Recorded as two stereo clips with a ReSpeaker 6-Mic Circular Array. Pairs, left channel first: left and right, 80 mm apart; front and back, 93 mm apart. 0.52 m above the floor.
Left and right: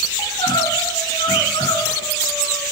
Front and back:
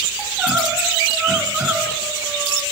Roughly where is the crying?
Left.